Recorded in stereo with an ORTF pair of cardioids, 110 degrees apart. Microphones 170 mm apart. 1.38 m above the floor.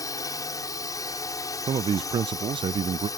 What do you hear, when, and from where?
0.0 s a drone: 20° left
1.7 s a man speaking: 30° right